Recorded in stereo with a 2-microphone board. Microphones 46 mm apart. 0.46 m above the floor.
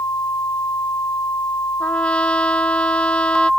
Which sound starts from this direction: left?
A trumpet, at 1.8 s.